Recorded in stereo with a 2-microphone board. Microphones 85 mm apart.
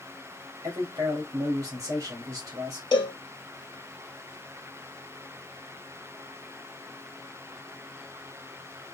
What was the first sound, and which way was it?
A man speaking, 40° right (ahead or behind).